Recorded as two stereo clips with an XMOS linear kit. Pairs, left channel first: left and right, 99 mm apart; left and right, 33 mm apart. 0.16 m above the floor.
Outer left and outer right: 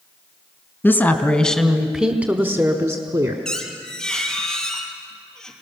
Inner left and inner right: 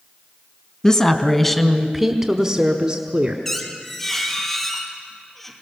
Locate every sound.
0.8 s a woman speaking: 25° left (ahead or behind), 1.4 m; by 3.4 s 40° right (ahead or behind), 1.6 m
3.5 s a squeak: 5° left (ahead or behind), 2.5 m